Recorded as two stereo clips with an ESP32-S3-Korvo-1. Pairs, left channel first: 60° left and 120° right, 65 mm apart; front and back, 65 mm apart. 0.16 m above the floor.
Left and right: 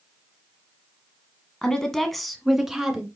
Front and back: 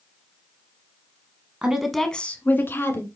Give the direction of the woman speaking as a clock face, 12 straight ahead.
8 o'clock.